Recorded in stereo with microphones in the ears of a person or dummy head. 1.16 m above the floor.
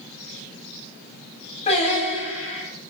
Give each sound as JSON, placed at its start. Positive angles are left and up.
{"t": 1.7, "sound": "singing", "side_deg": 40, "distance_m": 8.0}